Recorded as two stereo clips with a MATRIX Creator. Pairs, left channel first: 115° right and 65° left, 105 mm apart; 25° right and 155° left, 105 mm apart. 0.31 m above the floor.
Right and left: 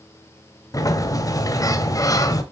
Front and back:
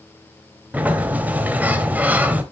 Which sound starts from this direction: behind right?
A sliding door, at 0.7 s.